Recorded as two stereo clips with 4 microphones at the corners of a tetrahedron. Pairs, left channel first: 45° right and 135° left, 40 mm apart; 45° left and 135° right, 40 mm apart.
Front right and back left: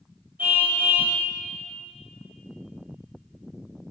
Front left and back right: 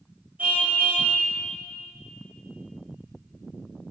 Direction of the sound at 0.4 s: 165° left.